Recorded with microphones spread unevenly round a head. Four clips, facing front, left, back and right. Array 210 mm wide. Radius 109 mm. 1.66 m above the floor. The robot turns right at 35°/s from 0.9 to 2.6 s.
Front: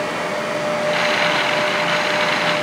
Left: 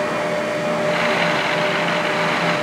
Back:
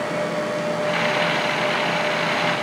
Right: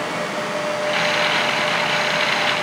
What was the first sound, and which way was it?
Only background noise.